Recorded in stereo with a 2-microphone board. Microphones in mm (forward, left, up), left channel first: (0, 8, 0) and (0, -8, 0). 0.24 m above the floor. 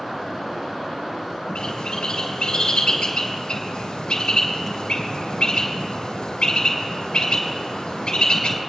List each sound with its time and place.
1.6 s a bird: 75° left (ahead or behind), 3.5 m